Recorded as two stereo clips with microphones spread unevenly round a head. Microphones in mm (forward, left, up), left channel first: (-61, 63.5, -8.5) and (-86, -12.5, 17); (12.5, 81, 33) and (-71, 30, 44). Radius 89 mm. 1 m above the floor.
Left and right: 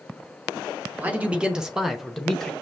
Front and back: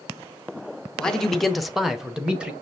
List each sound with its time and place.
1.0 s a man speaking: 20° right, 0.7 m; by 2.5 s 125° left, 0.9 m